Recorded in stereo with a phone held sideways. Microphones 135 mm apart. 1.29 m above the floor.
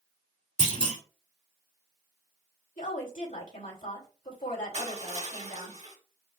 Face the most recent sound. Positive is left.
turn(degrees=-55)  # may be behind; listen again after turning